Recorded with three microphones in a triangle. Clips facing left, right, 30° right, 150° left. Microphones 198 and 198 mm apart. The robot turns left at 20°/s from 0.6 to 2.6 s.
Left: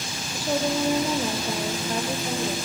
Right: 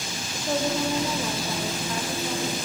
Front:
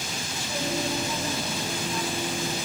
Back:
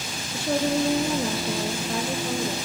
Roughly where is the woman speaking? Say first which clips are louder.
Left 1 dB, back 8 dB; behind.